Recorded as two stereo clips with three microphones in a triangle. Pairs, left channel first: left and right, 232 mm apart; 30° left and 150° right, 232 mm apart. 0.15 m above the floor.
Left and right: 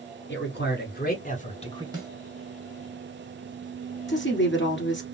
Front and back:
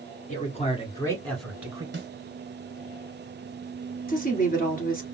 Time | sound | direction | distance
0.3 | a man speaking | 75° left | 1.9 m
1.9 | a snare drum | 155° right | 1.6 m
4.1 | a woman speaking | 75° left | 2 m